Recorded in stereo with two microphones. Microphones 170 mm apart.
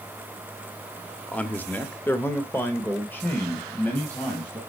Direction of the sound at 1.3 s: 5° left (ahead or behind).